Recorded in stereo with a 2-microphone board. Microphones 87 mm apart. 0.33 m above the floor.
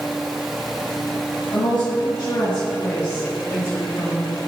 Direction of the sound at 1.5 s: 50° left (ahead or behind).